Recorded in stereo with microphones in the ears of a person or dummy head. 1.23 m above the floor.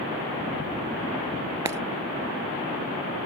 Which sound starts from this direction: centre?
Breaking glass, at 1.6 s.